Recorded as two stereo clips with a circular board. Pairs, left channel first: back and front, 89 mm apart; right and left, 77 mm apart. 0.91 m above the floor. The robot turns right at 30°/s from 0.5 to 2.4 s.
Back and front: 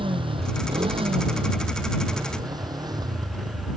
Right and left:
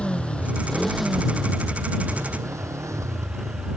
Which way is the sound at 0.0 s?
15° right.